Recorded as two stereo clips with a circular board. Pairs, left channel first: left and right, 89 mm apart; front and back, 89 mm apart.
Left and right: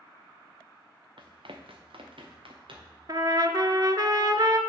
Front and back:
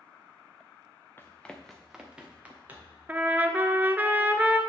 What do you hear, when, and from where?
1.2 s running footsteps: 65° right, 0.8 m; by 3.0 s 110° right, 2.0 m
3.1 s a trumpet: 115° right, 0.5 m